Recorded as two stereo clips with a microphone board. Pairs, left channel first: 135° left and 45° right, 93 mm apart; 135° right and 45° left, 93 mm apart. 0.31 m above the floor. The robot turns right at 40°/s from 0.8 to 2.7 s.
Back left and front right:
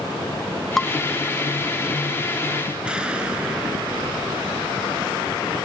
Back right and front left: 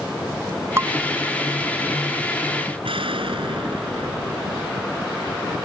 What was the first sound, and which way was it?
Dishes clattering, 55° left.